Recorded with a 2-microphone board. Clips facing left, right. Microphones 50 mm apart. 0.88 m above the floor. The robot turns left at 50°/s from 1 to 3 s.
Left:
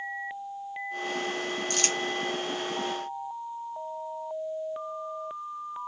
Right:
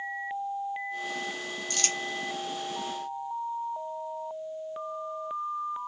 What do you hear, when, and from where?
1.7 s crumpling: 45° left (ahead or behind), 0.8 m; by 2.0 s 35° left (ahead or behind), 0.8 m